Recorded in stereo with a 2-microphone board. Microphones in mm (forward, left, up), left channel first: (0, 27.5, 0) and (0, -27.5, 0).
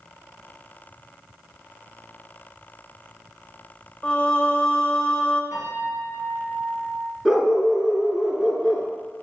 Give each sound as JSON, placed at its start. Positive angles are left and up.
{"t": 4.0, "sound": "singing", "side_deg": 20, "distance_m": 0.8}
{"t": 5.5, "sound": "a piano", "side_deg": -65, "distance_m": 3.0}
{"t": 7.2, "sound": "a dog barking", "side_deg": -10, "distance_m": 1.3}